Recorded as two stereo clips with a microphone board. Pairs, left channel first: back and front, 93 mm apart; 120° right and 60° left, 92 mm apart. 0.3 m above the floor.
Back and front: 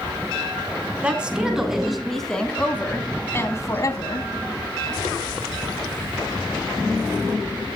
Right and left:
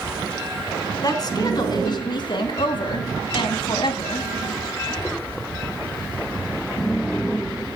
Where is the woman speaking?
80° right, 3.5 m; by 4.3 s 145° right, 2.5 m.